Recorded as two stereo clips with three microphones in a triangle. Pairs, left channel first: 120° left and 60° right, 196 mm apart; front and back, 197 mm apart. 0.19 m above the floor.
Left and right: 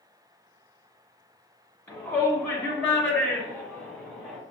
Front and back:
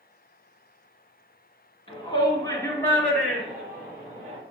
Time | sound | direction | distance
1.9 | a shout | 45° left | 1.6 m